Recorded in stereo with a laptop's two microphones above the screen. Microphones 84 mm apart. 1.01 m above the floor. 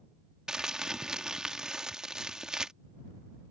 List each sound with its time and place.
0.5 s crumpling: 10° right (ahead or behind)